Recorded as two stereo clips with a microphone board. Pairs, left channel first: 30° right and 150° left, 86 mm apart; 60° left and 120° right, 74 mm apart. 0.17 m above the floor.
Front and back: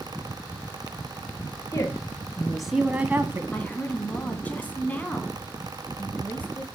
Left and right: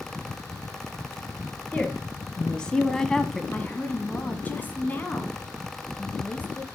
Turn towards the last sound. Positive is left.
turn(degrees=20)